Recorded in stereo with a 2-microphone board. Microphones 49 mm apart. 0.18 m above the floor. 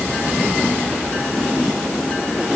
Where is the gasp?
No gasp in this recording.